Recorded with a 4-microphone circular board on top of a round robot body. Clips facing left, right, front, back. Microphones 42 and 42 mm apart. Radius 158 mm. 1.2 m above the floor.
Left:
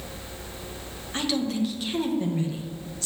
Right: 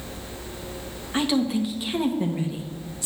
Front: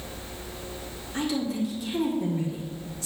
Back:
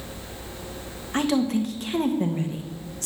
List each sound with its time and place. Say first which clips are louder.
1.1 s a woman speaking: right 4 dB, back 5 dB; 160° right, 1.6 m